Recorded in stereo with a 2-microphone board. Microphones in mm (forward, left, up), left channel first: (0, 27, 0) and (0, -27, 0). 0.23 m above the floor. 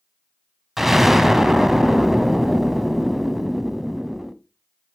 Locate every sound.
0.8 s an explosion: 5° right (ahead or behind), 0.5 m